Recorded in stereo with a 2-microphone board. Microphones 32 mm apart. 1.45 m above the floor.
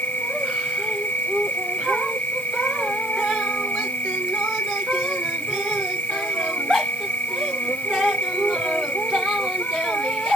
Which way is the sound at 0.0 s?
80° left.